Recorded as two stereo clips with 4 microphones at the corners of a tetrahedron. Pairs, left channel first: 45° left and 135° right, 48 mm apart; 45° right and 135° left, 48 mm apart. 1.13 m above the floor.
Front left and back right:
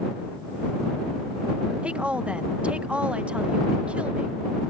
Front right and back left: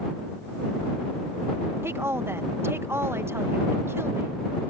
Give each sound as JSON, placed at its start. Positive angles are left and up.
{"t": 1.8, "sound": "a woman speaking", "azimuth_deg": 160}